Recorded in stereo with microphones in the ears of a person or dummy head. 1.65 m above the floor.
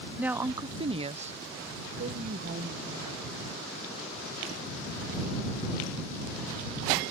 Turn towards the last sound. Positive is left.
turn(degrees=-45)  # may be behind; listen again after turning